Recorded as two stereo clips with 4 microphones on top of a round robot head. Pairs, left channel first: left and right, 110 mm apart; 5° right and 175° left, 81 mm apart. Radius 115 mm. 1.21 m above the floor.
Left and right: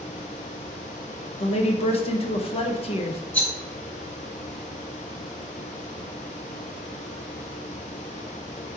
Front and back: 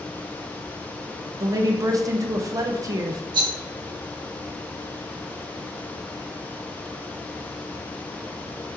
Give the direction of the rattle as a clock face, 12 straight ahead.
7 o'clock.